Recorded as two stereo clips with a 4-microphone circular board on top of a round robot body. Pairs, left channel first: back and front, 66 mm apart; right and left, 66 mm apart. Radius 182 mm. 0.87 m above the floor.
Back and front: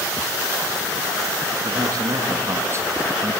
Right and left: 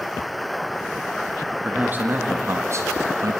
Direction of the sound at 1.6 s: 25° left.